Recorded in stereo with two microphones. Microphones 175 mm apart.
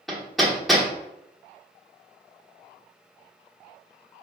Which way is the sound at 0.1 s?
Centre (ahead or behind).